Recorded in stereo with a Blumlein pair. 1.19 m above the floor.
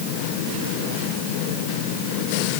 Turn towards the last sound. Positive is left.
No sound to turn to.